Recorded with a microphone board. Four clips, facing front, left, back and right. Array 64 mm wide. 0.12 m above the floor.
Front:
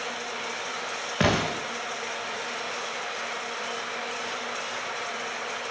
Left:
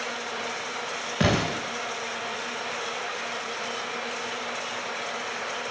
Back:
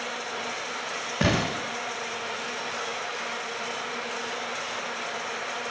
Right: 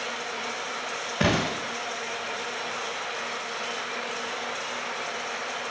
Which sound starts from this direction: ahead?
An explosion, at 1.2 s.